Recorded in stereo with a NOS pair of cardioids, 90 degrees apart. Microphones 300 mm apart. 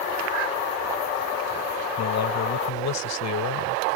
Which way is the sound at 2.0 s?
60° left.